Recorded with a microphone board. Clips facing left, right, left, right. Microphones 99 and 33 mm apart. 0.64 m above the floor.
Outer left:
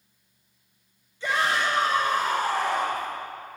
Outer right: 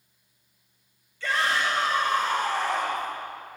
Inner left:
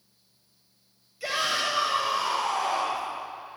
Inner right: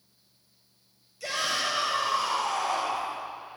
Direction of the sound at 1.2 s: 20° left (ahead or behind).